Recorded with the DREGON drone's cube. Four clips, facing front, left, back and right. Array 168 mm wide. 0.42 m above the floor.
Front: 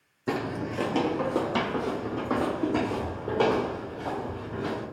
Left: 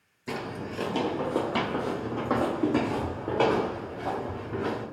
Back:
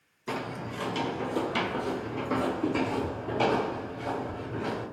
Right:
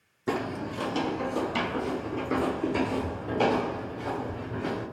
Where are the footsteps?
40° right, 0.5 m; by 4.8 s 65° left, 3.5 m.